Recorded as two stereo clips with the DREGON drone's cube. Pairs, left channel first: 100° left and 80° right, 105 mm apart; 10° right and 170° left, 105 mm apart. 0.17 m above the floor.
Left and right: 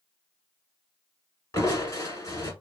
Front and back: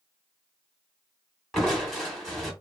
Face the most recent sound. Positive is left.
turn(degrees=75)